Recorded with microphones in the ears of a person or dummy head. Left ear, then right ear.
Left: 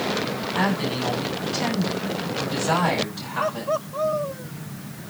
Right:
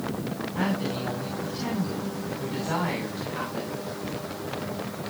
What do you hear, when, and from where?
0.6 s a woman speaking: 60° left (ahead or behind), 6.5 m; by 3.7 s 40° left (ahead or behind), 6 m